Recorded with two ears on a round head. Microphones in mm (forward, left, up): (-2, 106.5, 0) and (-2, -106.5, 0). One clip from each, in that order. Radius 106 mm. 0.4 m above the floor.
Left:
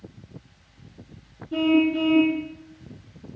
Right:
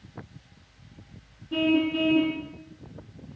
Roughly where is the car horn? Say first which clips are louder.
Left 3 dB; right.